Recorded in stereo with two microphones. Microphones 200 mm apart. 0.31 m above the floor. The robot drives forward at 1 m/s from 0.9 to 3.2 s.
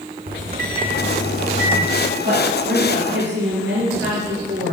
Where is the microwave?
50° right (ahead or behind), 1.3 m; by 1.9 s 40° right (ahead or behind), 1.6 m.